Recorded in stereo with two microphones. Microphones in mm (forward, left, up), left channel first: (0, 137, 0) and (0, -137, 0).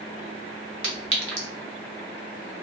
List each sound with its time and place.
0.8 s a clink: 50° right (ahead or behind), 1.1 m